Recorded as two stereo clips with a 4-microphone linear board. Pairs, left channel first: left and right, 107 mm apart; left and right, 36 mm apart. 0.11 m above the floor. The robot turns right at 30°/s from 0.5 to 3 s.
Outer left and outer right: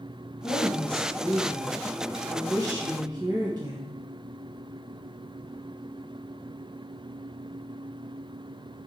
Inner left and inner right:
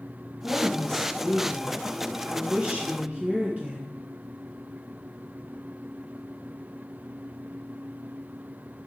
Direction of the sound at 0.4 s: 155° left.